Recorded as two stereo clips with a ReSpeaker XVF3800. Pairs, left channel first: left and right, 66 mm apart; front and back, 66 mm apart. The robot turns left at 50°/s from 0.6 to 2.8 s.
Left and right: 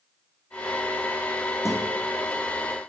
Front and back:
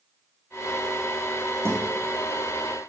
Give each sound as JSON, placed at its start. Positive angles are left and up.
{"t": 1.6, "sound": "a guitar", "azimuth_deg": 130, "distance_m": 5.0}